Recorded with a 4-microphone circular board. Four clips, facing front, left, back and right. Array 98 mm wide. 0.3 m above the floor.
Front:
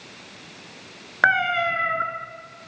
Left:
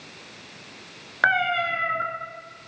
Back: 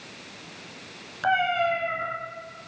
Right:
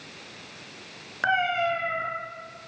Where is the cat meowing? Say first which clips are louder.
Left 2 dB, front 2 dB; 25° left, 2 m.